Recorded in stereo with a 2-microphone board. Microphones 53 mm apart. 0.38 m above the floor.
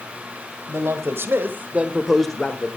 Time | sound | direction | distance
0.7 | a man speaking | 60° right (ahead or behind) | 2 m